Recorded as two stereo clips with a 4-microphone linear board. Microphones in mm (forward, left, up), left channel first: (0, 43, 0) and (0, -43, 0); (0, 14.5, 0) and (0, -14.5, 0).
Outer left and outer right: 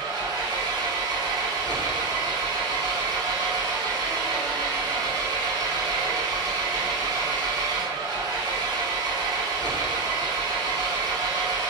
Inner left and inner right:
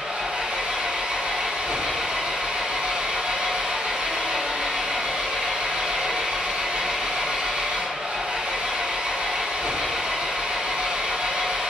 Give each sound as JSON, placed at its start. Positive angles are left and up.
{"t": 0.0, "sound": "an engine running", "side_deg": -55, "distance_m": 1.5}